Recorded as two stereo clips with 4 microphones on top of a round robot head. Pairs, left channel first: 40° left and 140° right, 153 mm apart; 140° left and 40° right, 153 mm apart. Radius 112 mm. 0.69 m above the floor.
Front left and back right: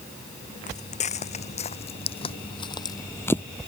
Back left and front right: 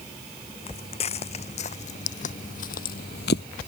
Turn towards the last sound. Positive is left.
turn(degrees=120)